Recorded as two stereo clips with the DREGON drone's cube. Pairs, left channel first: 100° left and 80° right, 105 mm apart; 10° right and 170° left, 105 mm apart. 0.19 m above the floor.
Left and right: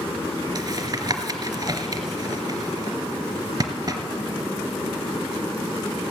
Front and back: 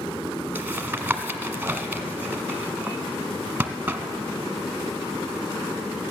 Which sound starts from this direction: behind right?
Tapping, at 0.6 s.